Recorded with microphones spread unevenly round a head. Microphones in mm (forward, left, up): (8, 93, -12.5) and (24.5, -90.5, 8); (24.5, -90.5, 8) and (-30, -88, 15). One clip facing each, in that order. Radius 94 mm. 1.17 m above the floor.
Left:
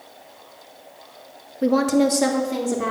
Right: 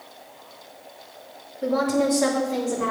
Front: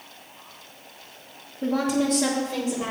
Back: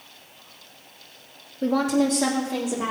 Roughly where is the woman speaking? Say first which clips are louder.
Left 4 dB, back 2 dB; behind left.